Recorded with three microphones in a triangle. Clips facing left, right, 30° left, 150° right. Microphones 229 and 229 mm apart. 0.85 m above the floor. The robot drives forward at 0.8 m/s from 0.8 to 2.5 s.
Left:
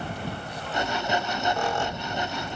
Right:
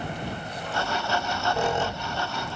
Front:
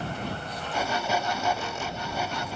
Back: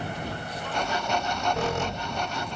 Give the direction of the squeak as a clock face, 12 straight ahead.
5 o'clock.